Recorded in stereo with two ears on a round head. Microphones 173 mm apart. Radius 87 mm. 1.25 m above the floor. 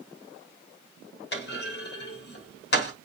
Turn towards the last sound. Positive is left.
turn(degrees=55)  # may be behind; listen again after turning